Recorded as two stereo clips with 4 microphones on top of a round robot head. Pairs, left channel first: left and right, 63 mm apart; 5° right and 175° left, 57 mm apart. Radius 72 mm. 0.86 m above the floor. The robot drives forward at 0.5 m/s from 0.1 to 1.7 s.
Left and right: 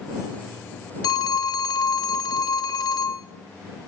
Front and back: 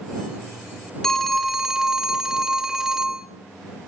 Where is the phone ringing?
75° left, 1.1 m; by 3.3 s 95° left, 1.0 m.